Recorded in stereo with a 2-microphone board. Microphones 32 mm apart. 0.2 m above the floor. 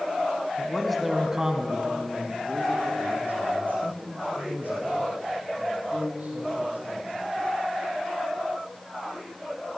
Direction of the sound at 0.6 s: 15° left (ahead or behind).